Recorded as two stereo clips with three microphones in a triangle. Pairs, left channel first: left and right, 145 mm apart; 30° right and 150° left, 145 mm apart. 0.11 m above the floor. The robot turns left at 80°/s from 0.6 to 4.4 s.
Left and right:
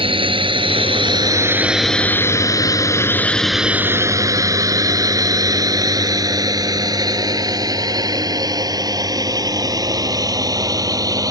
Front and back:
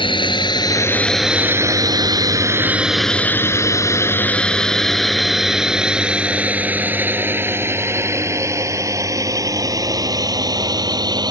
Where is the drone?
65° right; by 11.3 s 150° right.